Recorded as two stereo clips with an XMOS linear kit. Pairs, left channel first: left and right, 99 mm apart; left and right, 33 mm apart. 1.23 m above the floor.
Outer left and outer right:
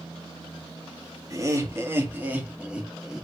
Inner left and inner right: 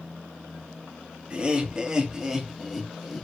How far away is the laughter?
About 2.0 m.